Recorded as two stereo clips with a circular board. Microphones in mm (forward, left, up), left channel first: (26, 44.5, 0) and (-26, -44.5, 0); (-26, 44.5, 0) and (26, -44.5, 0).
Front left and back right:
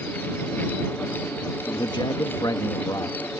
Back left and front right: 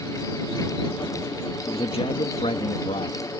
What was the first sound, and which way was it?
A man speaking, 95° left.